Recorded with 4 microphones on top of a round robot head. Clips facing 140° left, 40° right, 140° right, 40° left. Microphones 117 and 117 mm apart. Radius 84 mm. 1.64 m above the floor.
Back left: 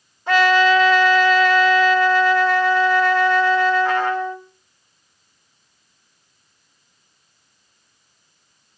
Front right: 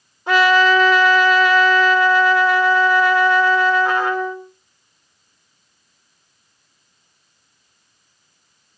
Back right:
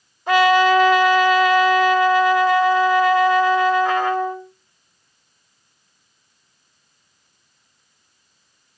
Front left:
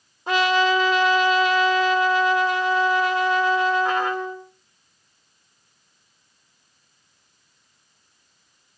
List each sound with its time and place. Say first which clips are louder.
0.3 s a trumpet: front right 1 dB, back right 5 dB; 15° left, 1.3 m